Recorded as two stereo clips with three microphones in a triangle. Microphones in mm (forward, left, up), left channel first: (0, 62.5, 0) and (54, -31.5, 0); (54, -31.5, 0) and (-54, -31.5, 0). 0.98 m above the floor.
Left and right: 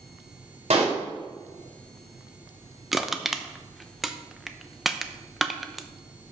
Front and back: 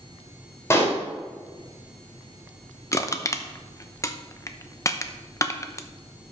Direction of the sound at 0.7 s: 65° right.